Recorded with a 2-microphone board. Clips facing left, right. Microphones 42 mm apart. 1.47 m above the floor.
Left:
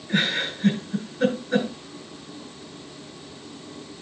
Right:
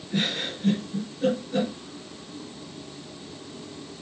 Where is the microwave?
I don't hear a microwave.